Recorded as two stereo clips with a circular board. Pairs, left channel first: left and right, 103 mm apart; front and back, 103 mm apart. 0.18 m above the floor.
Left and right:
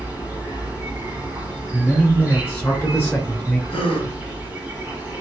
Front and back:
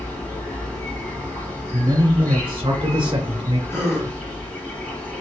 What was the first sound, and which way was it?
An insect, 40° right.